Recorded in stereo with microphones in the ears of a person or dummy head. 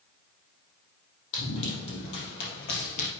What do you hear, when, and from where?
1.3 s running footsteps: 65° left (ahead or behind), 4 m; by 3.1 s 50° left (ahead or behind), 2.5 m